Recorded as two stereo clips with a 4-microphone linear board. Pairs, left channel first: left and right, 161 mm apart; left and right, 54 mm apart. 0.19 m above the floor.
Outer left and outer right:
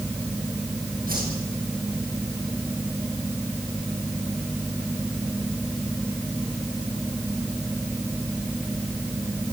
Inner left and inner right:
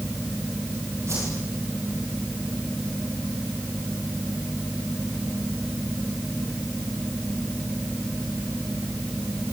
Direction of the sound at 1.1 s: 65° right (ahead or behind).